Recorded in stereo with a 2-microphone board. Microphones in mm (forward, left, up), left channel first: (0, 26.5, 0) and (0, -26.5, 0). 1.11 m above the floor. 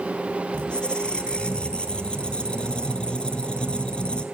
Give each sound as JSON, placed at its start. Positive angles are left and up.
{"t": 0.5, "sound": "a squeak", "side_deg": 20, "distance_m": 1.4}